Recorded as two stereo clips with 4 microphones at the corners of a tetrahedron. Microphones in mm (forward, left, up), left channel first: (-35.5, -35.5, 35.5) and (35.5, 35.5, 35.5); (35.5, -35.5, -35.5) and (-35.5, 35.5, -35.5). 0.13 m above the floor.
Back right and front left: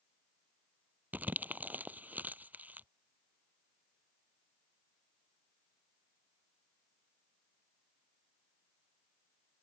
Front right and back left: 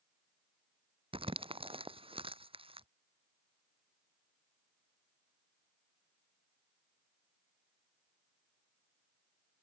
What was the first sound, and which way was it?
Crumpling, 120° left.